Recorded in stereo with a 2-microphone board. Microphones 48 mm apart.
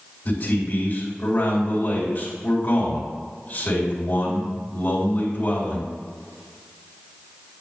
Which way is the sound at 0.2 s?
40° left (ahead or behind).